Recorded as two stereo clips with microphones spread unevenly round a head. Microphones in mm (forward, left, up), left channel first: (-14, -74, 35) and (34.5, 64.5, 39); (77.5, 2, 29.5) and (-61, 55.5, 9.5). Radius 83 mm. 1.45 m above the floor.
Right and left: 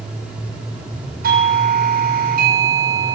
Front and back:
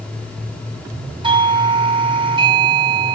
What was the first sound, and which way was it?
A doorbell, 100° left.